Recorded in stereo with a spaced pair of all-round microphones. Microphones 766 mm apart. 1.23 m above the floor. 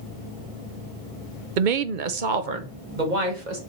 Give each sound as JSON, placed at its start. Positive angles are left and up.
{"t": 1.6, "sound": "a woman speaking", "side_deg": -70, "distance_m": 0.7}